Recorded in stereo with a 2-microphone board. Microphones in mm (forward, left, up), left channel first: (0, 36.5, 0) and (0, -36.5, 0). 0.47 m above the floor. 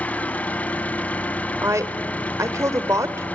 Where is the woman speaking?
45° right (ahead or behind), 1.4 m.